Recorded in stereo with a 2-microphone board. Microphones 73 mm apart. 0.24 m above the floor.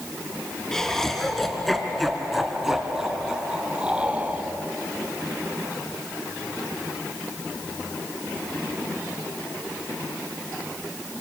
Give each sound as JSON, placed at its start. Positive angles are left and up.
{"t": 0.7, "sound": "laughter", "side_deg": 5, "distance_m": 4.0}